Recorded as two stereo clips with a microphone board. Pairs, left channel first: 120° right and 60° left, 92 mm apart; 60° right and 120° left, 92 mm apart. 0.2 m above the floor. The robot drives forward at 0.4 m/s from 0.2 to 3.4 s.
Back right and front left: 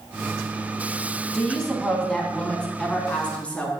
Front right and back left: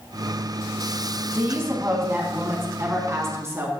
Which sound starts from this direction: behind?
A woman speaking, at 1.3 s.